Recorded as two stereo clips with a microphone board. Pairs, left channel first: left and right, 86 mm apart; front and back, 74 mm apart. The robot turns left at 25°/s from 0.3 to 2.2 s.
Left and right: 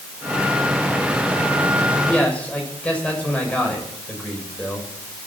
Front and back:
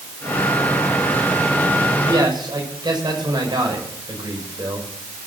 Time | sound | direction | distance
2.1 | a man speaking | 170° left | 7 m